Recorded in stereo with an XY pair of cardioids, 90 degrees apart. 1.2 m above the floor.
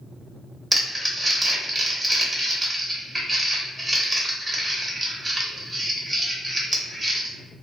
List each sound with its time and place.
0.7 s crumpling: 25° right, 1.0 m